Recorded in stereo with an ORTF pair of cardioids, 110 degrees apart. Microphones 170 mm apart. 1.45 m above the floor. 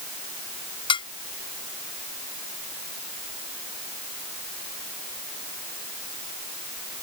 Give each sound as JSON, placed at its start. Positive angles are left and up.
{"t": 0.9, "sound": "dishes clattering", "azimuth_deg": 30}